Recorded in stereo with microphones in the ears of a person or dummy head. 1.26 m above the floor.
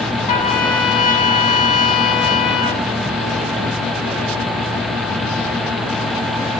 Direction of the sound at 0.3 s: 40° left (ahead or behind).